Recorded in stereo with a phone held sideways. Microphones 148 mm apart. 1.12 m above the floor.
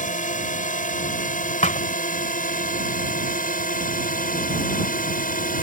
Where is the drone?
65° left (ahead or behind); by 5.6 s 75° left (ahead or behind).